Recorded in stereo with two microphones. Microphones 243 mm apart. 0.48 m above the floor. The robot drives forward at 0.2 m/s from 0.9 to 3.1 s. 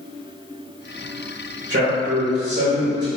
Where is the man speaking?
50° right (ahead or behind), 1.3 m; by 3.1 s 45° right (ahead or behind), 1.4 m.